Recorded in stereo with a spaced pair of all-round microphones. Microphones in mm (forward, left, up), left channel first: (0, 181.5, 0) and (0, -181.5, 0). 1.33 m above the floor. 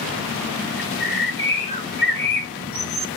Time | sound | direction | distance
0.8 | a bird | 70° left (ahead or behind) | 1.5 m